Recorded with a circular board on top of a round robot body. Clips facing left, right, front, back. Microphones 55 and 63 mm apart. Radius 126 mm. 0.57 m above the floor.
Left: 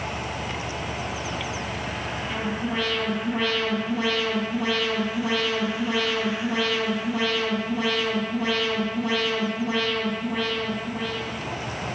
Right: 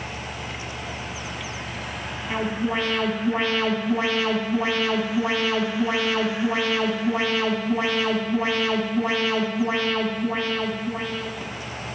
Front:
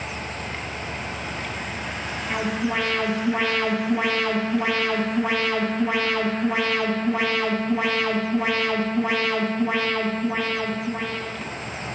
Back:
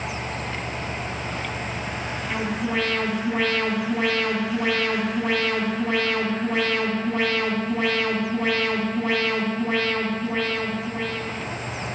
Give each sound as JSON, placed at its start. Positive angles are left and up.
{"t": 2.3, "sound": "an alarm", "azimuth_deg": -75, "distance_m": 2.0}